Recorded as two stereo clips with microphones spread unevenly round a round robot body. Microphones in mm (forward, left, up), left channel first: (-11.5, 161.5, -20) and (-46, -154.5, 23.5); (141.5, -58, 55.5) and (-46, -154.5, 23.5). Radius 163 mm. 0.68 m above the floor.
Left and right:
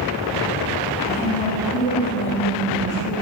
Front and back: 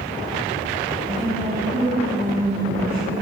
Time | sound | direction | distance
1.1 | a woman speaking | 145° left | 6 m